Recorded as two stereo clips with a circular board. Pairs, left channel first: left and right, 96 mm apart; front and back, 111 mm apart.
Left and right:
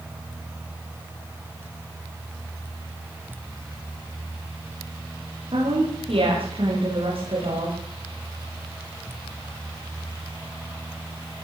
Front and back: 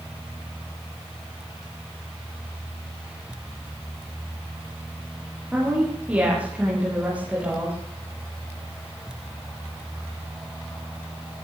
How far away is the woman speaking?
About 10 m.